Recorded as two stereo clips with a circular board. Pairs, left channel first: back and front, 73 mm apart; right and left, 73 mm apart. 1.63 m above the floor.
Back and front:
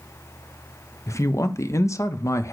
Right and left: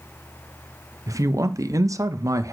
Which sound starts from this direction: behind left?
A man speaking, at 1.1 s.